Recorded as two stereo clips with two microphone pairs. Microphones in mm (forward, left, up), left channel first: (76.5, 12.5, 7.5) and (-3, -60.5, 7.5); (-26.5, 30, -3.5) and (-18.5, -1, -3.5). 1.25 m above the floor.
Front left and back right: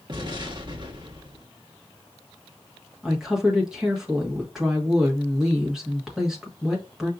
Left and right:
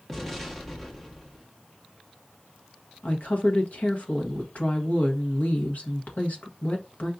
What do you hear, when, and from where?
0.1 s an explosion: straight behind, 1.1 m
3.0 s a woman speaking: 140° left, 1.3 m